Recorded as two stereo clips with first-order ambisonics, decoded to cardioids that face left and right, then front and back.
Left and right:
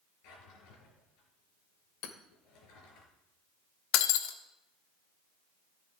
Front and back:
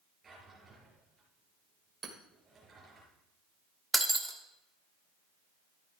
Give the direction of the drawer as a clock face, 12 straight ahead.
8 o'clock.